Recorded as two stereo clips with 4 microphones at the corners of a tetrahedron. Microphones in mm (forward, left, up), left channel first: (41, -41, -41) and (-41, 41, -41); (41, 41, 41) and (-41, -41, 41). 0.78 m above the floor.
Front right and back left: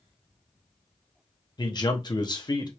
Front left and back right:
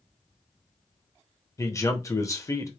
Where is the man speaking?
10° right, 0.9 m.